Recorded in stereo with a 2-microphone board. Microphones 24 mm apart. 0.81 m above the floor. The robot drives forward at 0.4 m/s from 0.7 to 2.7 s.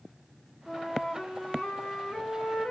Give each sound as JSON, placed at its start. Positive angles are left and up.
{"t": 0.7, "sound": "a flute", "side_deg": 45, "distance_m": 1.4}